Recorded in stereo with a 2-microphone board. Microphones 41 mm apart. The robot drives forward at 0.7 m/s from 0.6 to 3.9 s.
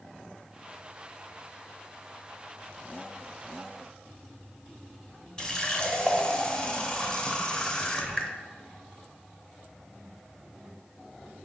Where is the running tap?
20° left (ahead or behind), 0.5 m.